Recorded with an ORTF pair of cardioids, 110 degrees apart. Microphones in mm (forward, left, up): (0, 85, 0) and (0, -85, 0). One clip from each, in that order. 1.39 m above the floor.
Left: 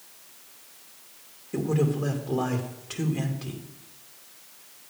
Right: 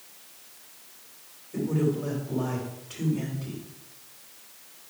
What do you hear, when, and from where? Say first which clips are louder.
1.5 s a man speaking: left 1 dB; 65° left, 2.5 m